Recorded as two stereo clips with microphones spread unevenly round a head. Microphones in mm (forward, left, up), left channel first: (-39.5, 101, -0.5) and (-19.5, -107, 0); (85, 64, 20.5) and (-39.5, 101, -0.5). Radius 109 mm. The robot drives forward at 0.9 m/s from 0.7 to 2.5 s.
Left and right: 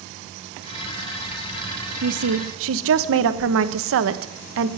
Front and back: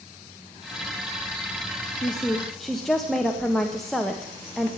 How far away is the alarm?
No alarm in this recording.